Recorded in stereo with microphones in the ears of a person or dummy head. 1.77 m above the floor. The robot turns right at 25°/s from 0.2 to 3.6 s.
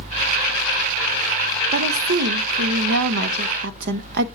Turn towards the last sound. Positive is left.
turn(degrees=-80)